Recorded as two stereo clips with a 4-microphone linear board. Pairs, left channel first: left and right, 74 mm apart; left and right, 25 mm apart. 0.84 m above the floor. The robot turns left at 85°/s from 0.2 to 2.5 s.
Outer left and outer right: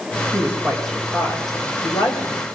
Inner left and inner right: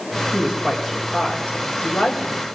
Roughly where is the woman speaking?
Behind right.